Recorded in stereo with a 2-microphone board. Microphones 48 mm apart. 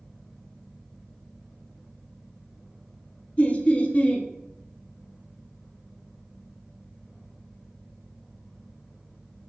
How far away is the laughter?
About 0.6 m.